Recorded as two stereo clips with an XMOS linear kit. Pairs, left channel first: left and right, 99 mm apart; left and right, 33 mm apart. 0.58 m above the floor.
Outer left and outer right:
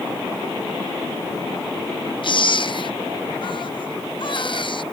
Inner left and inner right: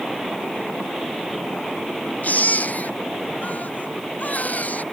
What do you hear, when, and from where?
2.2 s a baby crying: 55° left (ahead or behind)